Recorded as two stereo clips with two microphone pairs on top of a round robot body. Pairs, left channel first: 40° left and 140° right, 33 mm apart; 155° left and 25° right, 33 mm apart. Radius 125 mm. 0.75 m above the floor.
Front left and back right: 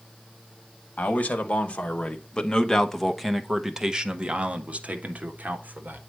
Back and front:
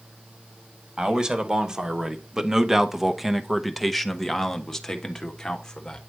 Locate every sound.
1.0 s a man speaking: 15° left, 1.7 m; by 6.0 s 120° right, 1.7 m